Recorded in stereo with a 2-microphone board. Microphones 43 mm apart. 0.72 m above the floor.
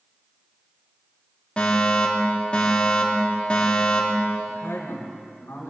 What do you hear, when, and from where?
1.6 s a fire alarm: 25° left (ahead or behind), 2.5 m
4.5 s a man speaking: 75° left (ahead or behind), 3.5 m